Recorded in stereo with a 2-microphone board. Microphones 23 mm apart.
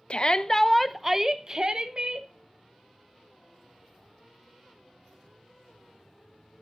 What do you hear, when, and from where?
0.1 s a shout: 45° left (ahead or behind), 0.7 m; by 2.3 s 45° right (ahead or behind), 1.4 m